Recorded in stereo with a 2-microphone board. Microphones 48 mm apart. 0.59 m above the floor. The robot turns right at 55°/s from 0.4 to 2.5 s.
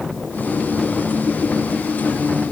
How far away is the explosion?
I don't hear an explosion.